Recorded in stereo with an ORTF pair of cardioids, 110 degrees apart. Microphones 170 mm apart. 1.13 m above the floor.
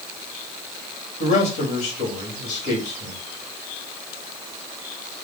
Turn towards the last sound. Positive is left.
turn(degrees=45)